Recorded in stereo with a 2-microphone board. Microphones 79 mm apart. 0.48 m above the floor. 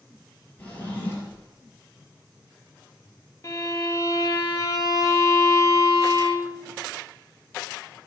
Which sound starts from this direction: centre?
A drawer, at 0.6 s.